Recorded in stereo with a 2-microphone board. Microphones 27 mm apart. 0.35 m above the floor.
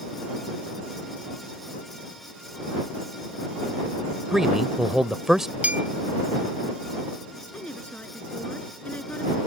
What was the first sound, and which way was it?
A man speaking, 20° right (ahead or behind).